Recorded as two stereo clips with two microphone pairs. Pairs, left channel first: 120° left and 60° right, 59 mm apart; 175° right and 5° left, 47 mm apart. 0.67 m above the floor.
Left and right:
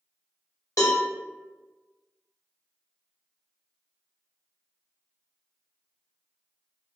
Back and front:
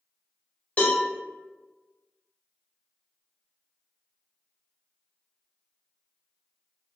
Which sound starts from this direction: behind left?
A cowbell, at 0.8 s.